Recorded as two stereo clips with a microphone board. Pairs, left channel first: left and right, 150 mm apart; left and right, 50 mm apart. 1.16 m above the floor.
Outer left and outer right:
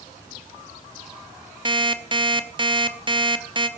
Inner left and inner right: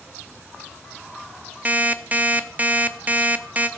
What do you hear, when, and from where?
1.6 s an alarm clock: 30° right (ahead or behind), 0.7 m